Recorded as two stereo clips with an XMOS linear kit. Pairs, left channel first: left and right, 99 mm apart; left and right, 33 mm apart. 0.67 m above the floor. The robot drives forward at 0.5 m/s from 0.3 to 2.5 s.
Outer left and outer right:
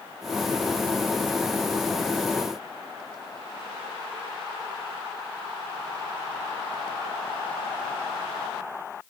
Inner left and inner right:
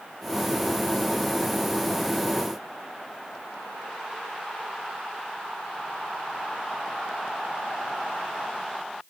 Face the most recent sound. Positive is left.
No sound to turn to.